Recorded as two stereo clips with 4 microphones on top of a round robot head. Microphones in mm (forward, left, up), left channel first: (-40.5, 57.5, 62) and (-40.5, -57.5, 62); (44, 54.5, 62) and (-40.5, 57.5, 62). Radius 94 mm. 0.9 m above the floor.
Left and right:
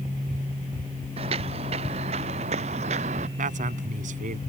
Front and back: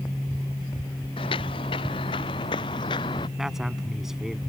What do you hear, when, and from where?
1.2 s footsteps: 40° right; by 3.3 s 50° right
3.4 s a man speaking: 95° right